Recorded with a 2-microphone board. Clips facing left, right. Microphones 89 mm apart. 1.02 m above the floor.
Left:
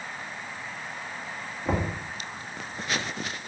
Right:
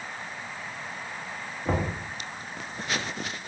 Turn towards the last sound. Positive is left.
turn(degrees=0)  # may be behind; listen again after turning